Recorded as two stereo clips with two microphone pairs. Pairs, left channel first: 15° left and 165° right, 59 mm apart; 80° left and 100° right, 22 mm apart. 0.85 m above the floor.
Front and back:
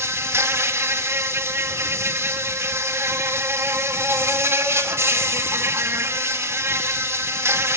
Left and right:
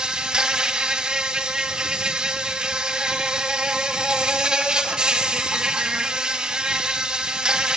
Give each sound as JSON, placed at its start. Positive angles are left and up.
{"t": 0.0, "sound": "an insect", "azimuth_deg": -140, "distance_m": 2.0}